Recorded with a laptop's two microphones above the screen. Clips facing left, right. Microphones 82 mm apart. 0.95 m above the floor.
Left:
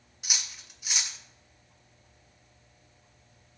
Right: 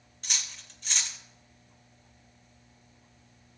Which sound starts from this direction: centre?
Cutlery clinking, at 0.2 s.